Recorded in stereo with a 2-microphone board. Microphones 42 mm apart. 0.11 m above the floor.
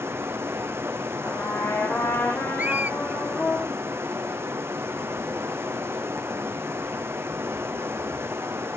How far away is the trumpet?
About 3.5 m.